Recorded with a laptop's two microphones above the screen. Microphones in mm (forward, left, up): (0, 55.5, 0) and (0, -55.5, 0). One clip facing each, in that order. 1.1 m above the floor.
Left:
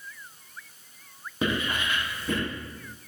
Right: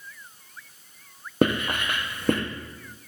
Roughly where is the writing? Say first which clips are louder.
Right 5 dB; right.